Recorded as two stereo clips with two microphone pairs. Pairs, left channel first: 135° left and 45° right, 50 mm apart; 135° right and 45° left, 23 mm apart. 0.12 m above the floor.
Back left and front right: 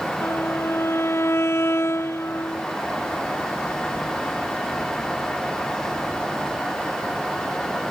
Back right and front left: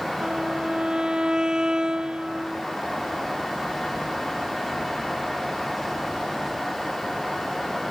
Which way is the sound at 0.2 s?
100° left.